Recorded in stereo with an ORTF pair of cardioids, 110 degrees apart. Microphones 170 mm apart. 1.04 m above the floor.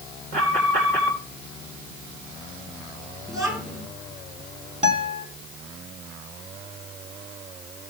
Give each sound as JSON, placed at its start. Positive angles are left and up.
{"t": 0.3, "sound": "an alarm", "azimuth_deg": -65, "distance_m": 4.5}
{"t": 3.3, "sound": "a child speaking", "azimuth_deg": -20, "distance_m": 9.5}
{"t": 4.8, "sound": "a guitar", "azimuth_deg": -45, "distance_m": 2.5}